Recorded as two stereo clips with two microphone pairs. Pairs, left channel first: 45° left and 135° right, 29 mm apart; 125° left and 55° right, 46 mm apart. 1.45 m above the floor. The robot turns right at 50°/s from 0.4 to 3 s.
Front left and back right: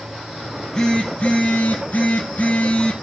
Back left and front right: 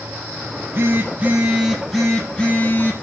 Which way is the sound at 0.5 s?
40° right.